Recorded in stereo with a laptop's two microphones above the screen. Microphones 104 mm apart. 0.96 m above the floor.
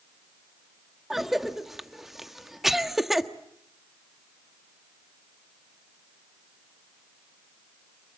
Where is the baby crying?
I don't hear a baby crying.